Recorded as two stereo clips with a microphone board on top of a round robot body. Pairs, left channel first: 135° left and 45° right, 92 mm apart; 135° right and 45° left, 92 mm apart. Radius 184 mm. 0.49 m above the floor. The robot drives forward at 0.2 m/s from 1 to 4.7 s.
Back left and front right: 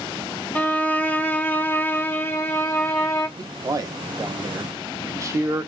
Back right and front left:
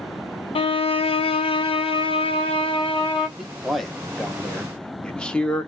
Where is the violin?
150° right, 0.8 m; by 3.3 s 165° right, 1.2 m.